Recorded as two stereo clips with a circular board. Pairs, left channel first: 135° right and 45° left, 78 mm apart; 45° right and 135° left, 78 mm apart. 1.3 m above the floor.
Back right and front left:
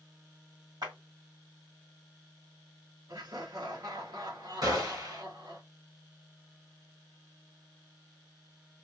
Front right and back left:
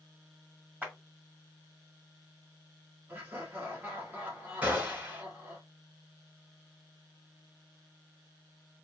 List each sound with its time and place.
0.8 s a clap: 65° left, 2 m
3.1 s laughter: 70° left, 1.4 m
4.6 s a gunshot: 65° left, 2 m